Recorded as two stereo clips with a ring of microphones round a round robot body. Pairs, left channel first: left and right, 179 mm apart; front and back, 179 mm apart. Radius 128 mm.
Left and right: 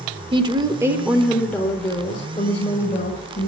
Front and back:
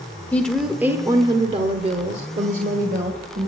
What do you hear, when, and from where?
0.3 s a woman speaking: 75° right, 1.2 m; by 3.5 s 145° left, 2.5 m